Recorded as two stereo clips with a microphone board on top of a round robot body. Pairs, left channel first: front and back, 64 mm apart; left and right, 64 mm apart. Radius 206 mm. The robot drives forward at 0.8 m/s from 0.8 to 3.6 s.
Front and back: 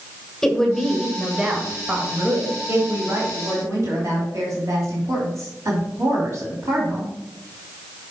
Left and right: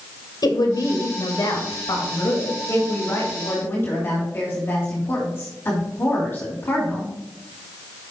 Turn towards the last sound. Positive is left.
turn(degrees=140)